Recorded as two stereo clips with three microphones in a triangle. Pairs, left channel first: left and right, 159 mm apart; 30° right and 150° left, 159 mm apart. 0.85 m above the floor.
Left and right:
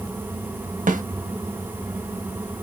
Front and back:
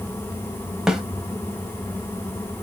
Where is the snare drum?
120° right, 0.8 m.